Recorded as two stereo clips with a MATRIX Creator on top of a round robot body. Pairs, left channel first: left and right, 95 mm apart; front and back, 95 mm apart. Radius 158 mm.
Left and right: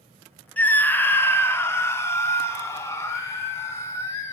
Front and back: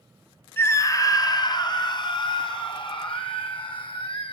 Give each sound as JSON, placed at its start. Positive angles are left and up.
{"t": 0.6, "sound": "a scream", "azimuth_deg": 30, "distance_m": 1.0}